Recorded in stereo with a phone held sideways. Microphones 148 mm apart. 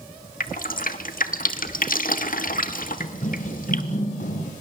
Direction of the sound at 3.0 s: 50° left (ahead or behind).